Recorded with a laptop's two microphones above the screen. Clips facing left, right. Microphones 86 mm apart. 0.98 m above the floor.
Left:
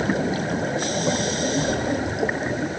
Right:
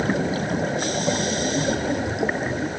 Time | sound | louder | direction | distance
1.6 | footsteps | even | 45° left (ahead or behind) | ?